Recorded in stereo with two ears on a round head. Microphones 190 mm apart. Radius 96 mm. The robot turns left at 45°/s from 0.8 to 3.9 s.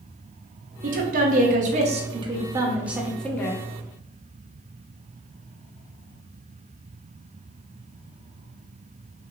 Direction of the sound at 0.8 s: 80° right.